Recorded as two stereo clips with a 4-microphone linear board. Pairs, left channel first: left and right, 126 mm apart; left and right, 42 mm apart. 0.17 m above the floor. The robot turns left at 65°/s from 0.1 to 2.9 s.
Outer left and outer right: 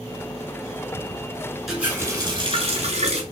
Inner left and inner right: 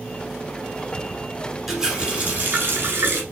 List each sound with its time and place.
1.7 s a running tap: 5° right, 1.2 m; by 3.2 s 85° right, 1.2 m